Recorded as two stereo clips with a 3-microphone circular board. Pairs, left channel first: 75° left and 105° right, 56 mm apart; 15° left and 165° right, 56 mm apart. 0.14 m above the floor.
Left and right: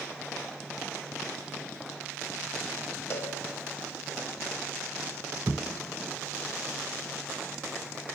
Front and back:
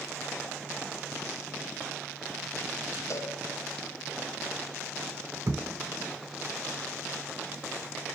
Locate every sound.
3.1 s a cowbell: 25° left, 4 m
5.5 s a thud: 145° right, 2 m